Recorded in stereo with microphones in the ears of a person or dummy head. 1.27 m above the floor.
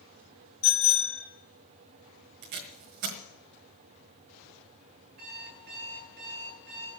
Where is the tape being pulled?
45° right (ahead or behind), 1.5 m.